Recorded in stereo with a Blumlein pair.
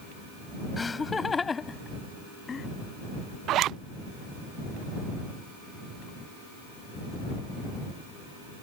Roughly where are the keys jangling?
No keys jangling in this recording.